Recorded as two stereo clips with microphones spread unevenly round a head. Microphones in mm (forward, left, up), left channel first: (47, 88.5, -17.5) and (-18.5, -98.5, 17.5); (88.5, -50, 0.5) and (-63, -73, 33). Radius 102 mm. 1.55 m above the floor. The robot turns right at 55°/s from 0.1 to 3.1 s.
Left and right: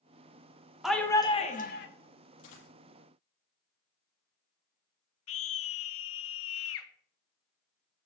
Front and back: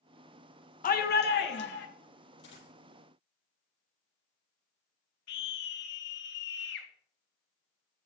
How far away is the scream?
About 1.3 m.